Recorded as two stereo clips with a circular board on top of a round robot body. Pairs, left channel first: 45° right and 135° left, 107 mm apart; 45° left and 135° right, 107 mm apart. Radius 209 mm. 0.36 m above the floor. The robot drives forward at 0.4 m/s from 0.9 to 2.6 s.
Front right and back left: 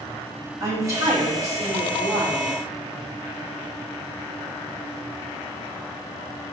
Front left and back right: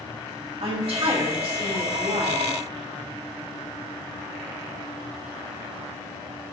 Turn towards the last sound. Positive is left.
turn(degrees=-170)